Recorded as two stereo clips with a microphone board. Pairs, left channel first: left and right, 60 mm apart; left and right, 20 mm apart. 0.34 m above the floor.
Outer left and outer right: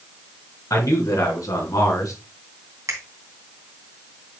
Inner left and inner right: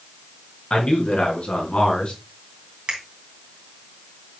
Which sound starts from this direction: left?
A man speaking, at 0.7 s.